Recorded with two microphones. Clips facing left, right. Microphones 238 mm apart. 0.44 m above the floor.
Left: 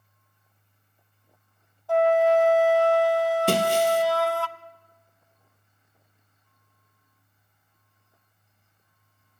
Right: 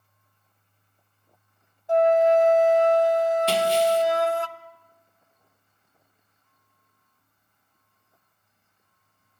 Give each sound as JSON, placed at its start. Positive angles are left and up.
{"t": 1.9, "sound": "a flute", "side_deg": -20, "distance_m": 0.5}
{"t": 3.5, "sound": "breaking glass", "side_deg": 55, "distance_m": 1.4}